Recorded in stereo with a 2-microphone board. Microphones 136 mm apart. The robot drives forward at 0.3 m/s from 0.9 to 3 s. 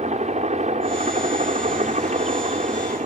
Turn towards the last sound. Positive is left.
turn(degrees=-55)  # may be behind; listen again after turning